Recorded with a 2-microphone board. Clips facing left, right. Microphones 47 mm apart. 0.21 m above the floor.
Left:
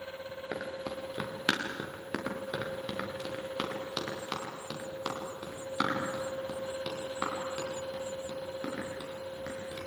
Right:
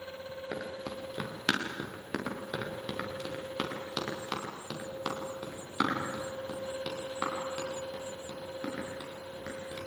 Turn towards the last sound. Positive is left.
turn(degrees=-5)  # may be behind; listen again after turning